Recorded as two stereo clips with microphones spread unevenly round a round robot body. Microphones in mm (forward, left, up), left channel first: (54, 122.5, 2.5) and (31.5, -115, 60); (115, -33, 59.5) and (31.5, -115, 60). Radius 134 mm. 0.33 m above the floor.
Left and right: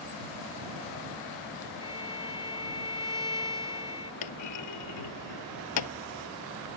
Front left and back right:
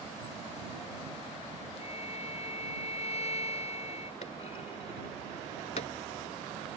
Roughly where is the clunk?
Left.